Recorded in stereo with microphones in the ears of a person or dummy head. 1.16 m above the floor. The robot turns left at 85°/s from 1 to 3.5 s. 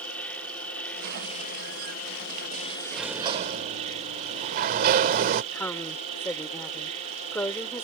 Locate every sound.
0.0 s an insect: 175° left; by 7.8 s 40° right
2.9 s a sliding door: straight ahead; by 5.4 s 50° right
5.5 s a woman speaking: 15° left (ahead or behind)